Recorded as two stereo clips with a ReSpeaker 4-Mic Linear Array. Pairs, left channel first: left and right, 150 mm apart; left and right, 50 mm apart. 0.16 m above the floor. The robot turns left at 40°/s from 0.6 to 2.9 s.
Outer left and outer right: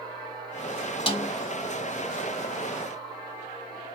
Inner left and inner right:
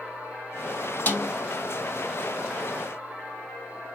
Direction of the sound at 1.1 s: 35° left (ahead or behind).